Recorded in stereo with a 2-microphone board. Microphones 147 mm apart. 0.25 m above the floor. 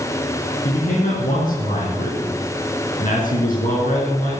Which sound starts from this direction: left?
A man speaking, at 0.7 s.